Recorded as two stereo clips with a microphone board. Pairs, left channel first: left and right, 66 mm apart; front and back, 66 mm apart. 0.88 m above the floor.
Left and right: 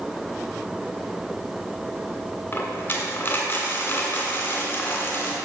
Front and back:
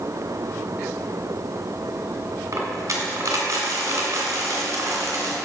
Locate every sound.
2.5 s a dropped coin: 140° left, 2 m